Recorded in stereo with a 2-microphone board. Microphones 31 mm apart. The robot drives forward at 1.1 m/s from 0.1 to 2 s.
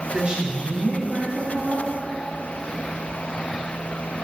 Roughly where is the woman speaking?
Right.